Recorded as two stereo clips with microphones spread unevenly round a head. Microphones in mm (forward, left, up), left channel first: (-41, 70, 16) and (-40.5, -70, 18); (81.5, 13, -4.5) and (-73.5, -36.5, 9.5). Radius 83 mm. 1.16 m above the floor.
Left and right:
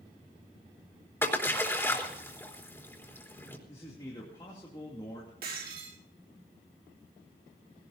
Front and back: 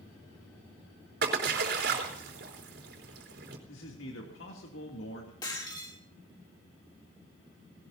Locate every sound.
1.2 s a splash: 165° left, 4 m
3.7 s a man speaking: 20° left, 3 m
5.4 s breaking glass: 50° right, 4.5 m